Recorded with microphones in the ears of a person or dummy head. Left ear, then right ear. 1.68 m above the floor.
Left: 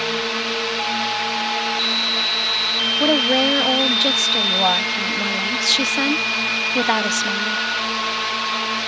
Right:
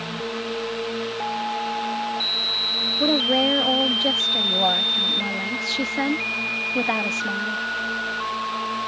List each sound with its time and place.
0.0 s a drone: 60° left (ahead or behind)
3.0 s a woman speaking: 30° left (ahead or behind)